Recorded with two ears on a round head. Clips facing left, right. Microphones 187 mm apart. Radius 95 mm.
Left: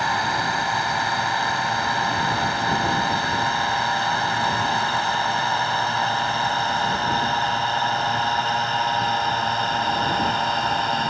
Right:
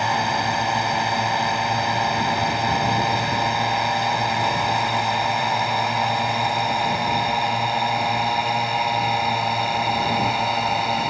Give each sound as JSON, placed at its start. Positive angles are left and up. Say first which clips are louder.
{"t": 0.0, "sound": "a drone", "louder": "right 2 dB", "side_deg": -15}